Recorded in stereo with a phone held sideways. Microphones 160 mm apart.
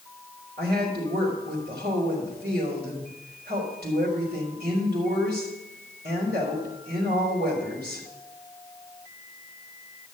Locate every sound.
0.6 s a woman speaking: 75° right (ahead or behind), 4 m